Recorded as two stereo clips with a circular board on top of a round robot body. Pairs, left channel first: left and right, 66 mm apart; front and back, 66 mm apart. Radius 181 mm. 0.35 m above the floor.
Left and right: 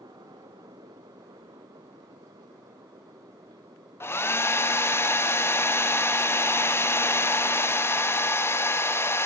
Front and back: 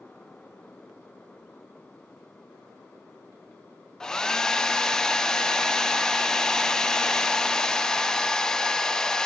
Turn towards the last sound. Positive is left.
turn(degrees=75)